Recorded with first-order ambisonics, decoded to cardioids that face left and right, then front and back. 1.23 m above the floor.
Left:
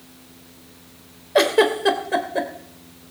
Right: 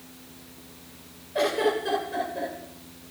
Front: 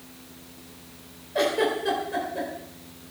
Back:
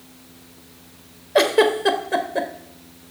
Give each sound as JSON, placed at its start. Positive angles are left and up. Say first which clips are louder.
{"t": 1.4, "sound": "a giggle", "louder": "left 7 dB, back 7 dB", "azimuth_deg": 135, "distance_m": 2.5}